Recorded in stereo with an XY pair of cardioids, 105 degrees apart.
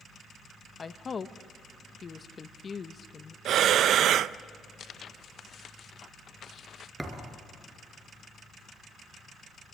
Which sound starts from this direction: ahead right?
Breathing, at 3.5 s.